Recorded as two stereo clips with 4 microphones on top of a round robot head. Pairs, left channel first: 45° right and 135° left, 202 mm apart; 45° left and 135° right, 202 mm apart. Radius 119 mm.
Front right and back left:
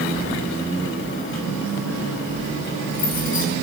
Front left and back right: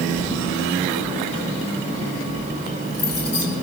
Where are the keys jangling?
25° right, 4 m; by 3.5 s 5° left, 2.5 m.